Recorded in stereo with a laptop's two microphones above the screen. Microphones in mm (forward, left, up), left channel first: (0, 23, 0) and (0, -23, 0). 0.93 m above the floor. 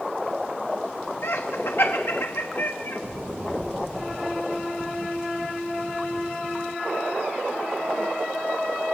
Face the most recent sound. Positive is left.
turn(degrees=65)  # may be behind; listen again after turning